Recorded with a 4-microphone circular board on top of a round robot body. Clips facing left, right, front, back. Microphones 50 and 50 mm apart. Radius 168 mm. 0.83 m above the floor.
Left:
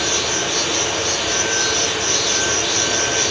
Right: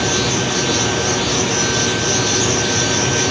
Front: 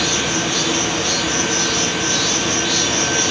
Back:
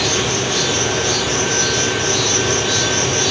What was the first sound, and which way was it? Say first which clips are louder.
An insect: right 3 dB, back 1 dB; 80° right.